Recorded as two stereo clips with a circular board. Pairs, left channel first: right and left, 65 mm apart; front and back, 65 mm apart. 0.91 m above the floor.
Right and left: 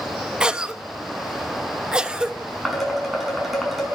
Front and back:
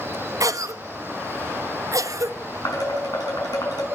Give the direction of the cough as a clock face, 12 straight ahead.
6 o'clock.